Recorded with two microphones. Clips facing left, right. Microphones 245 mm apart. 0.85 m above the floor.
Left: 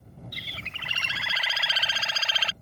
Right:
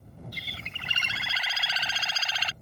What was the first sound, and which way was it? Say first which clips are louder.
A bird: even; 70° left (ahead or behind).